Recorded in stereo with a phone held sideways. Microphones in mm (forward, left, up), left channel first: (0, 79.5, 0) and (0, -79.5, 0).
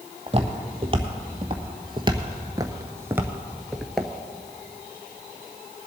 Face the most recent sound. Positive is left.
turn(degrees=5)  # may be behind; listen again after turning